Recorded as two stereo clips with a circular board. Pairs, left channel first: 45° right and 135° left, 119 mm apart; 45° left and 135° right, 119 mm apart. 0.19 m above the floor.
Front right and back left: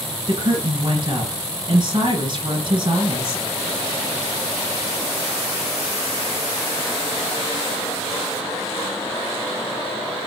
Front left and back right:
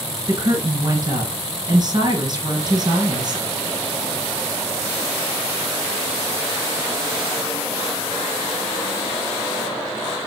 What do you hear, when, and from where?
0.3 s a woman speaking: 175° left, 2.5 m